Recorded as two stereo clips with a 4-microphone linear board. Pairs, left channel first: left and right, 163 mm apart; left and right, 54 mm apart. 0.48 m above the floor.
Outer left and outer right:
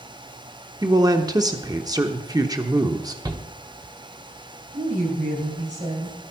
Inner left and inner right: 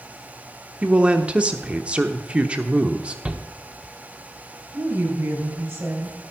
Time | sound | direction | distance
0.8 | a man speaking | 20° right (ahead or behind) | 0.9 m
3.2 | a shout | 25° right (ahead or behind) | 0.9 m
4.7 | a woman speaking | 50° right (ahead or behind) | 3 m